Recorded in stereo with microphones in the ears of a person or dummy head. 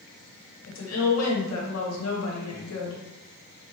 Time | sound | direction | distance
0.7 | a woman speaking | 85° left | 1.0 m